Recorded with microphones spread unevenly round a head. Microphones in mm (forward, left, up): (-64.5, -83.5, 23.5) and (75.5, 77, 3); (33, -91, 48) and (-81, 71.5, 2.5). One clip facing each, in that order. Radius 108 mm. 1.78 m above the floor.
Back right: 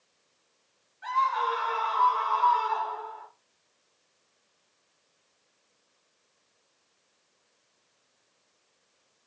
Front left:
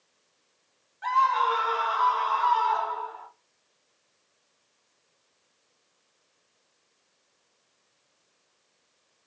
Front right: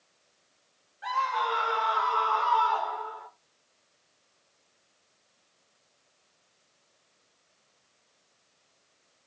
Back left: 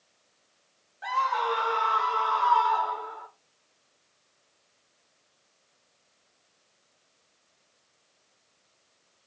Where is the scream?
75° left, 1.9 m; by 3.3 s 65° left, 3.5 m.